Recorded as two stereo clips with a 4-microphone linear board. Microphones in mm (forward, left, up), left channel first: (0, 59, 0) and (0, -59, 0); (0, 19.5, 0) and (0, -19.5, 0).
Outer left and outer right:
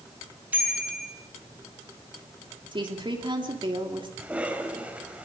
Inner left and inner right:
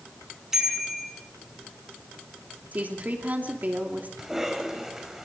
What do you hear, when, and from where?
0.5 s a bicycle bell: 15° right (ahead or behind), 8.5 m
2.7 s a woman speaking: 45° right (ahead or behind), 3 m
4.2 s a cough: 10° right (ahead or behind), 4.5 m